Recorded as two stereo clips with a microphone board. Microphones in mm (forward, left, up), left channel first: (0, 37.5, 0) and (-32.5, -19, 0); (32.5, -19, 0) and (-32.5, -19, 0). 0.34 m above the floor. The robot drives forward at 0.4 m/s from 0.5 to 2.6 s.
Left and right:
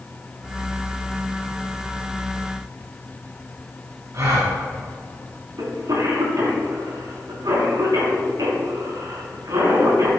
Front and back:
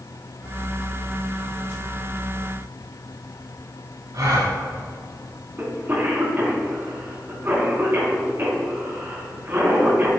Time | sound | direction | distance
4.1 | a gasp | 160° right | 3 m
5.6 | a cough | 125° right | 3 m